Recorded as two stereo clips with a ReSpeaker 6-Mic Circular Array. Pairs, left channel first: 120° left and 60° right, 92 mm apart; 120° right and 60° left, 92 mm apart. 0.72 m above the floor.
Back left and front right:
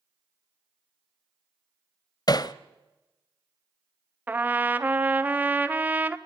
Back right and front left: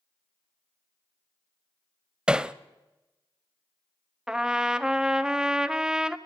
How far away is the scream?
No scream in this recording.